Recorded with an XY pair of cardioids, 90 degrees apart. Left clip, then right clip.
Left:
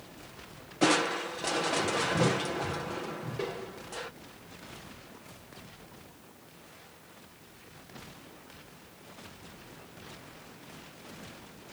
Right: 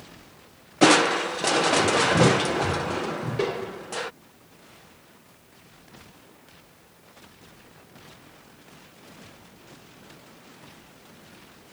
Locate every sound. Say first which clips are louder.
0.8 s crushing: right 9 dB; 65° right